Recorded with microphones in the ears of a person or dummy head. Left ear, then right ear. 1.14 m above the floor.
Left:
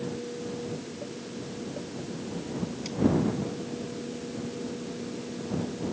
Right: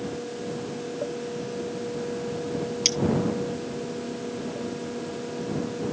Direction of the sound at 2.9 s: 70° right (ahead or behind).